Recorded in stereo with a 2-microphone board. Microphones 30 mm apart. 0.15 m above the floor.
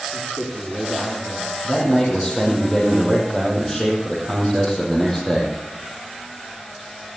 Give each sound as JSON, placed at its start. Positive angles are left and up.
{"t": 0.1, "sound": "a man speaking", "side_deg": -10, "distance_m": 6.0}
{"t": 1.6, "sound": "a man speaking", "side_deg": 15, "distance_m": 6.0}